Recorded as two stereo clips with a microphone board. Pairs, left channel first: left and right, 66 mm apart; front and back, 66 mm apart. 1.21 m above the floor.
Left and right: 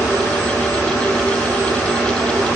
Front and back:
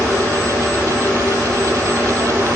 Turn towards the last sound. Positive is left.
No sound to turn to.